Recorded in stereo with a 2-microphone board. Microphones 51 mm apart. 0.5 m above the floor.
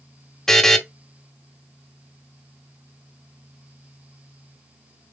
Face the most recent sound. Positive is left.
turn(degrees=10)  # may be behind; listen again after turning